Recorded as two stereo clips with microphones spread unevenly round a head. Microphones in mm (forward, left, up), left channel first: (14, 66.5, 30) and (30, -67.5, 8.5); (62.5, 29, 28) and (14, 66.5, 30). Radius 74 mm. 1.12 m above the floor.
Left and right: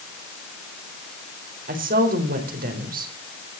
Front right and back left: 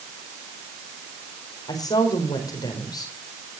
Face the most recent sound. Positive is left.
turn(degrees=-70)